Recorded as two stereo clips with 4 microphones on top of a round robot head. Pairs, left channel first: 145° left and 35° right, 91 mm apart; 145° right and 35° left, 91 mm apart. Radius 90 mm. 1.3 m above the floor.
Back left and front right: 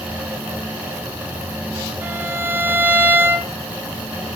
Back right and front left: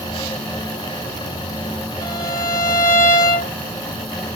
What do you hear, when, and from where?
2.0 s a violin: 100° right, 3.5 m